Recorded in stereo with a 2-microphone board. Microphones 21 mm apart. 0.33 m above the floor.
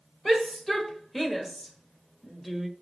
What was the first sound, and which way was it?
A shout, 10° left (ahead or behind).